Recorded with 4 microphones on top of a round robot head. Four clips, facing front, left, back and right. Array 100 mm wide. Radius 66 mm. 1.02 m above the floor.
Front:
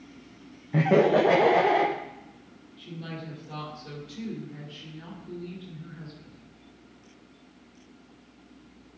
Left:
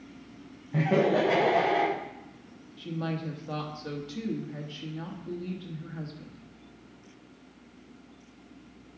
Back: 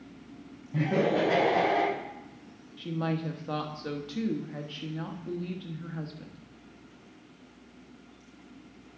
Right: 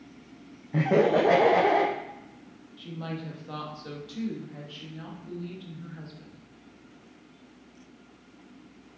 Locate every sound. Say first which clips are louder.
0.7 s laughter: right 2 dB, front 6 dB; 20° right, 0.9 m; by 1.9 s 55° right, 1.5 m
2.8 s a woman speaking: left 3 dB, back 8 dB; 160° left, 1.4 m